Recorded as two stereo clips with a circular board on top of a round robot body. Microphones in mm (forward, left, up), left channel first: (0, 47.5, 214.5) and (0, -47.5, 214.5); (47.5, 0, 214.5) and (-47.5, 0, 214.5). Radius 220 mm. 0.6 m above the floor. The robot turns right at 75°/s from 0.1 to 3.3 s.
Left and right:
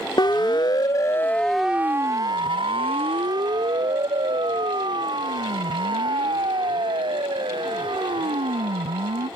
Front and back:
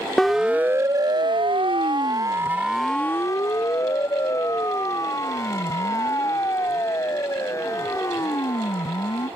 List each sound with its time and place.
0.2 s a siren: 85° left; by 9.3 s 60° right